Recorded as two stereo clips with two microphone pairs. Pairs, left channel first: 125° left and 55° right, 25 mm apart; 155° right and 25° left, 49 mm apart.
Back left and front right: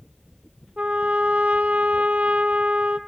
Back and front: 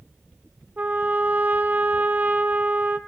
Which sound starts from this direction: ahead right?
A trumpet, at 0.8 s.